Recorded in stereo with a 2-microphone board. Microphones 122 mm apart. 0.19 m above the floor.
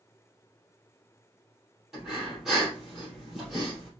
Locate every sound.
1.9 s breathing: 5° right (ahead or behind), 3 m